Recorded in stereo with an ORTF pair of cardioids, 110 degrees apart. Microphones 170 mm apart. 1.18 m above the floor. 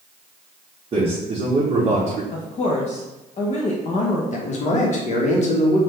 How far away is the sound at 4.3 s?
About 1.2 m.